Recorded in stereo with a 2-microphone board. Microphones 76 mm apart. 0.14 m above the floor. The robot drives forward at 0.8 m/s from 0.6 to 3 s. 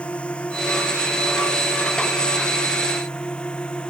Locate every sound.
0.0 s a drone: 15° left (ahead or behind); by 3.9 s 10° left (ahead or behind)